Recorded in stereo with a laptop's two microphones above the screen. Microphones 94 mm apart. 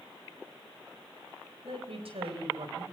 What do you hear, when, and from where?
1.6 s a woman speaking: 70° right (ahead or behind), 4 m